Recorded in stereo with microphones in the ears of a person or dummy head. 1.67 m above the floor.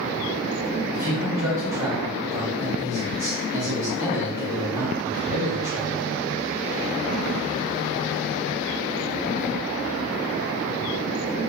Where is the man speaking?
15° right (ahead or behind), 0.9 m.